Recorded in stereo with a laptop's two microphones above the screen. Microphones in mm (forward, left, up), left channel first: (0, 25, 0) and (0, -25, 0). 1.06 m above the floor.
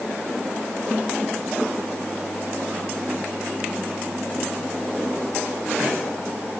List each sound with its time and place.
Only background noise.